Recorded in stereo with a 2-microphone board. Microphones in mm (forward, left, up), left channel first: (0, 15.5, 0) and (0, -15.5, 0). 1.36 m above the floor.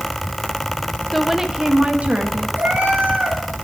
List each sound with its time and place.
1.1 s a woman speaking: 5° left (ahead or behind), 1.2 m; by 2.5 s 50° right (ahead or behind), 2 m
2.6 s a cat meowing: 70° right (ahead or behind), 3.5 m